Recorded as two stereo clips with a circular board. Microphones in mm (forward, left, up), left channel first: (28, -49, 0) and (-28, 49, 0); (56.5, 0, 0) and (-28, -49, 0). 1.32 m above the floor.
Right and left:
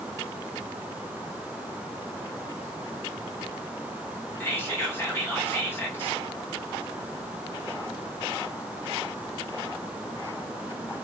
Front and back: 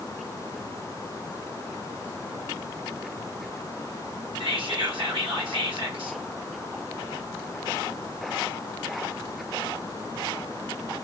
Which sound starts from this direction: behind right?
Whispering, at 4.4 s.